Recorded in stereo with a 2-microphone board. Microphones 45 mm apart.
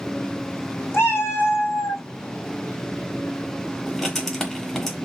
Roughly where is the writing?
Centre.